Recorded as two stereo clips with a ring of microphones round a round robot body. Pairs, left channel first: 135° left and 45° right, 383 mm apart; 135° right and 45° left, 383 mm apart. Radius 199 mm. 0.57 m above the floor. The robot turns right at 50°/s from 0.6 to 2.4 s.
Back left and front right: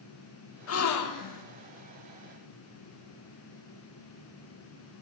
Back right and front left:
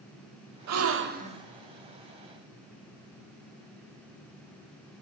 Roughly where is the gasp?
Left.